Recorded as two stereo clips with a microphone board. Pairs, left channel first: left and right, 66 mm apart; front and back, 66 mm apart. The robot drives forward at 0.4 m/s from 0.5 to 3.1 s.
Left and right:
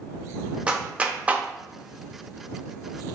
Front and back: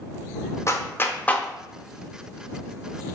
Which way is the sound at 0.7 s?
20° right.